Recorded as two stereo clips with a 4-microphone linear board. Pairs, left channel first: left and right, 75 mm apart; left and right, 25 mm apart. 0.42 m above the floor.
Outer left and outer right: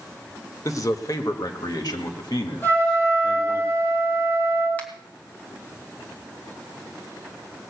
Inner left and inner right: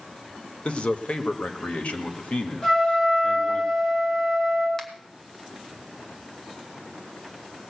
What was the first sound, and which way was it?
A man speaking, 45° left (ahead or behind).